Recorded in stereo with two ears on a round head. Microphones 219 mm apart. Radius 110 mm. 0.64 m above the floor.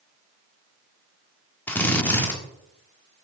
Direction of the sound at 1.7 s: 10° left (ahead or behind).